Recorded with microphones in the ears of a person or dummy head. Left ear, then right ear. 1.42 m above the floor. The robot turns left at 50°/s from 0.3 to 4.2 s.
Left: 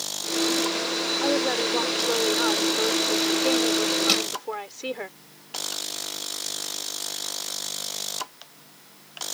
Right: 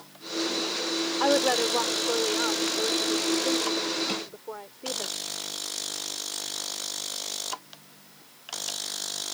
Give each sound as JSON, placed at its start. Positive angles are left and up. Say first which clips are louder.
{"t": 1.2, "sound": "a woman speaking", "louder": "right 3 dB", "azimuth_deg": -135}
{"t": 4.1, "sound": "crushing", "louder": "left 9 dB", "side_deg": 40}